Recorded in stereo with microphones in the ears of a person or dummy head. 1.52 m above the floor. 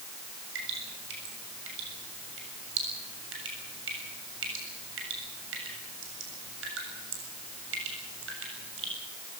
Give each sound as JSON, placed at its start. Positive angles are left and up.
{"t": 0.6, "sound": "dripping", "side_deg": -85, "distance_m": 7.0}